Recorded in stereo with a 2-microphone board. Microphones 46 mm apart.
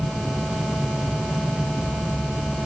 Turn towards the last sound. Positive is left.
No sound to turn to.